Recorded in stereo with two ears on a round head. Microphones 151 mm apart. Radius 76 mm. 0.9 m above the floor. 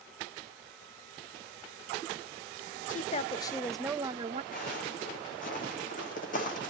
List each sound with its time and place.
2.9 s a woman speaking: 45° left (ahead or behind), 0.8 m; by 4.4 s 35° right (ahead or behind), 0.7 m
4.5 s footsteps: 50° left (ahead or behind), 5.5 m